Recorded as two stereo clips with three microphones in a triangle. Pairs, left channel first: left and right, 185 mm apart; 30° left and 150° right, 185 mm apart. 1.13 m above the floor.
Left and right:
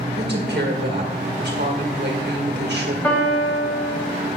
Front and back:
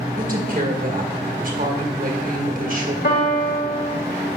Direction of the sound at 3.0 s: 10° left.